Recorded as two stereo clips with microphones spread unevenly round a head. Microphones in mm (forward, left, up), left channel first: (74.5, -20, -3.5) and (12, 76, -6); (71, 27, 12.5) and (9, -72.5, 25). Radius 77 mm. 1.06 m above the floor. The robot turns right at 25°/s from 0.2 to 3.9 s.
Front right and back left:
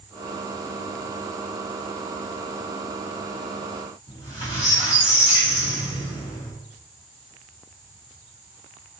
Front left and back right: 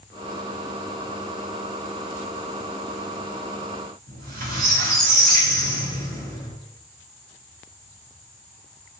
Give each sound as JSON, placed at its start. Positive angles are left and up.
{"t": 4.1, "sound": "a squeak", "azimuth_deg": -130, "distance_m": 1.2}